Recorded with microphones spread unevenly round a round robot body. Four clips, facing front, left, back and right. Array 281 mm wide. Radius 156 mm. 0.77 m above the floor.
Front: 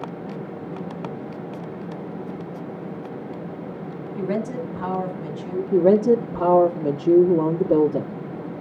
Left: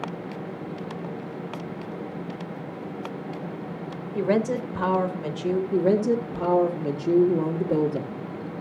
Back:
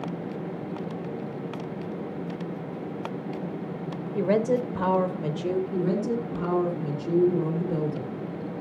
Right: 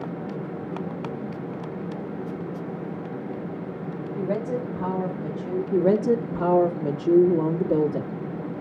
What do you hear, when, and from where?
4.2 s a woman speaking: 105° left, 4.5 m; by 5.6 s 120° left, 4 m
5.7 s a woman speaking: 5° left, 2.5 m